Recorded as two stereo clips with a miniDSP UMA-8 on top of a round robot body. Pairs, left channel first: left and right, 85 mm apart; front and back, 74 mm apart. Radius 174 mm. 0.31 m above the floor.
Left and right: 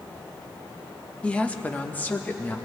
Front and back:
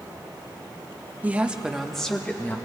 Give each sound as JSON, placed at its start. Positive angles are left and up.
{"t": 1.2, "sound": "a woman speaking", "azimuth_deg": 150, "distance_m": 1.3}